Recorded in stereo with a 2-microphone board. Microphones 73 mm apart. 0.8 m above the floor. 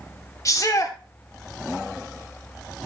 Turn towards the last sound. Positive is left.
turn(degrees=45)  # may be behind; listen again after turning